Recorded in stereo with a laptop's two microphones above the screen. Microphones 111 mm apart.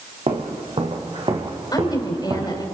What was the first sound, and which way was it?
Footsteps, 65° right (ahead or behind).